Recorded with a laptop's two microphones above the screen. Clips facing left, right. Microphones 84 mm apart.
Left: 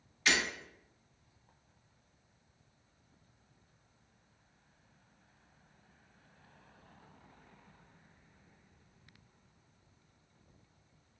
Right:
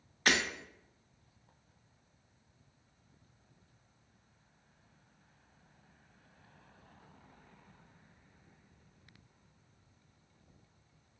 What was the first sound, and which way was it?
Breaking glass, 50° right (ahead or behind).